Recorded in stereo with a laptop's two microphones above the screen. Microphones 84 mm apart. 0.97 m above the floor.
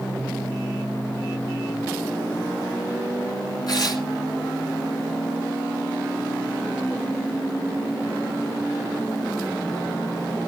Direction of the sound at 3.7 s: 55° left (ahead or behind).